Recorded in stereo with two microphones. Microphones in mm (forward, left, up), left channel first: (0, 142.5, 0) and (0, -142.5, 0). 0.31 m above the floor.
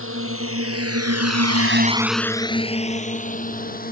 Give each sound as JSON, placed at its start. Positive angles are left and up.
{"t": 0.0, "sound": "a drone", "side_deg": -50}